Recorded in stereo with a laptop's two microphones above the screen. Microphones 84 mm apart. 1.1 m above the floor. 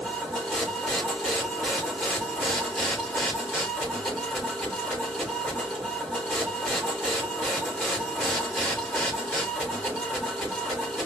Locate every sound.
0.0 s a machine running: 5° left (ahead or behind), 3.5 m